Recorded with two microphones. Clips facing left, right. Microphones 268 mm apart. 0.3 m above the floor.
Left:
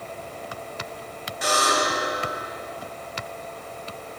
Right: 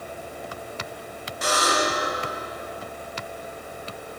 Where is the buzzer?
50° right (ahead or behind), 1.9 m.